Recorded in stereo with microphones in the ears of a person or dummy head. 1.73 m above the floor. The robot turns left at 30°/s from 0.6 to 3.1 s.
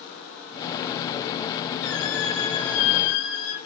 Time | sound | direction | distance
1.8 | a squeak | 95° left | 5 m